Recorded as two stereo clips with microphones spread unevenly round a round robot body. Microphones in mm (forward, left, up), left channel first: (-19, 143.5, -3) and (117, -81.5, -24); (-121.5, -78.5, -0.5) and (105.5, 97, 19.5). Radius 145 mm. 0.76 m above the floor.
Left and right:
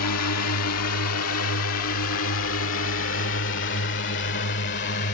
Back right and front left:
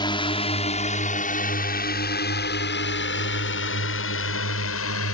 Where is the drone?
145° left; by 5.2 s straight behind.